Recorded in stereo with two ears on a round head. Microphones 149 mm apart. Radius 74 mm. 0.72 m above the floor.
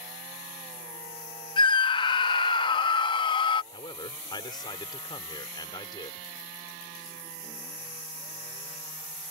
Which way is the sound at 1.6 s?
30° left (ahead or behind).